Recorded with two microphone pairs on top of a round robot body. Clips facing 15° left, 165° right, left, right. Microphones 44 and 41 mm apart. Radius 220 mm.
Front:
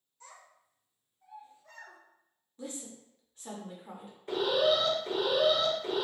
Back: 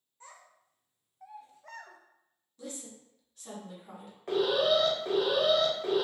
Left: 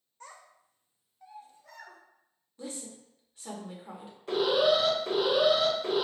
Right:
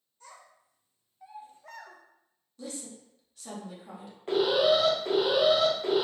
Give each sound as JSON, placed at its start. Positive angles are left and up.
{"t": 0.2, "sound": "a child speaking", "azimuth_deg": 130, "distance_m": 0.9}
{"t": 2.6, "sound": "a woman speaking", "azimuth_deg": 55, "distance_m": 0.9}
{"t": 4.3, "sound": "an alarm", "azimuth_deg": -140, "distance_m": 1.3}